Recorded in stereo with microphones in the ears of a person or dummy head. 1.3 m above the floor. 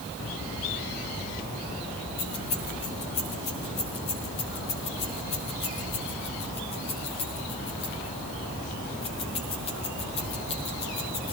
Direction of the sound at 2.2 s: 25° left (ahead or behind).